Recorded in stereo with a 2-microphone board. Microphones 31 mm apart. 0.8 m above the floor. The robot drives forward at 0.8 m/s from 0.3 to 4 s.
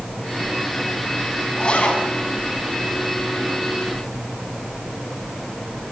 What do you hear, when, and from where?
1.6 s a zipper: 35° left (ahead or behind), 6 m